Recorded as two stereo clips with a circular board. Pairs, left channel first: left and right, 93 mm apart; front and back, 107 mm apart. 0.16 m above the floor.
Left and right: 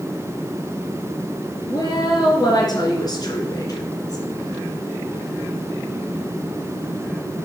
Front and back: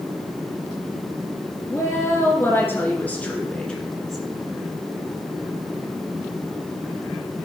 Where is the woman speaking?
60° left, 3 m; by 4.3 s 90° left, 1.8 m.